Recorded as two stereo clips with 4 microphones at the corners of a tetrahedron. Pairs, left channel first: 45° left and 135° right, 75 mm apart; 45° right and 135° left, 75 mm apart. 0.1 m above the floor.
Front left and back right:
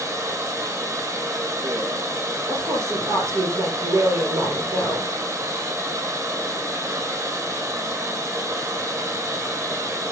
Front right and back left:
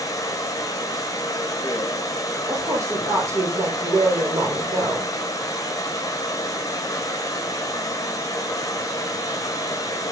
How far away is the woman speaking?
About 2.5 m.